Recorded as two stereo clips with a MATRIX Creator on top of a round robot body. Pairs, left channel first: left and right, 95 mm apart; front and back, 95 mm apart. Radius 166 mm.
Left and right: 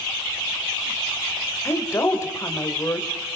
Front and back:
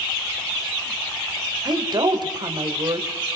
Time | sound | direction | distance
1.6 | a woman speaking | 150° left | 3 m